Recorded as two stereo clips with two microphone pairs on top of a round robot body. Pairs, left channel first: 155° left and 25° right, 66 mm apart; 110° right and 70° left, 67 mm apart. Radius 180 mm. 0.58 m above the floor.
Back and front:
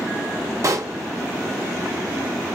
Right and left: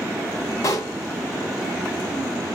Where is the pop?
65° right, 0.6 m.